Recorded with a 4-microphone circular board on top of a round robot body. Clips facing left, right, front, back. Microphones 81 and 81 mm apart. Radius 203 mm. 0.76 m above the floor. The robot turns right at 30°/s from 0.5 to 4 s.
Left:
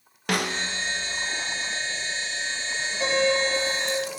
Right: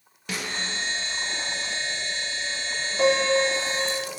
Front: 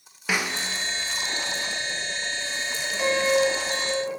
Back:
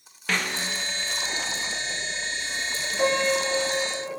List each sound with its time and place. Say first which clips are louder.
0.3 s a snare drum: left 5 dB, front 1 dB; 80° left, 0.6 m; by 0.7 s 85° left, 0.6 m
3.0 s a piano: right 3 dB, front 2 dB; 110° right, 2.5 m; by 4.1 s 80° right, 2.5 m